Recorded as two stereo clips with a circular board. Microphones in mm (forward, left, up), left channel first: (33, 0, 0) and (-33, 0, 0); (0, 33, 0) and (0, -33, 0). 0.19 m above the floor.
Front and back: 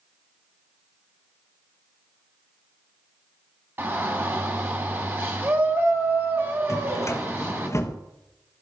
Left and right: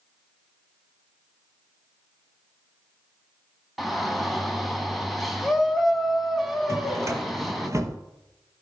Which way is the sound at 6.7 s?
45° right.